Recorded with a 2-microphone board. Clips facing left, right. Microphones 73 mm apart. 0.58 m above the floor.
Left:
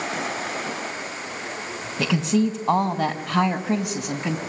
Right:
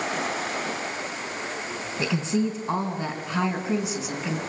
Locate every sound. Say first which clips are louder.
2.0 s a woman speaking: left 4 dB; 80° left, 3.5 m; by 4.4 s 70° left (ahead or behind), 4 m